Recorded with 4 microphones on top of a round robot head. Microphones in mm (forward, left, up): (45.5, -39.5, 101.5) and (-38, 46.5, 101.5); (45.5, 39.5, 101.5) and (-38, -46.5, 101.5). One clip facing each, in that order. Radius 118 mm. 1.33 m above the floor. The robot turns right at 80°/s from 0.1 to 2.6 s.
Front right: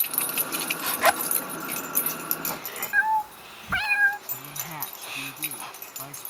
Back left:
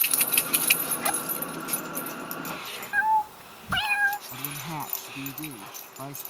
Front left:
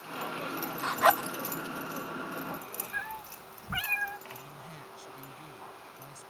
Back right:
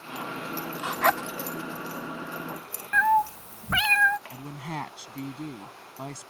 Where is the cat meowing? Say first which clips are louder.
Back left 1 dB, back right 23 dB; 150° right.